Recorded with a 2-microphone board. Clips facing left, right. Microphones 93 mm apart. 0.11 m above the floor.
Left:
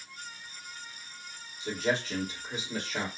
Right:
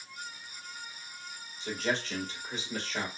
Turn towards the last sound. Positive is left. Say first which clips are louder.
# left 2 dB
turn(degrees=10)  # may be behind; listen again after turning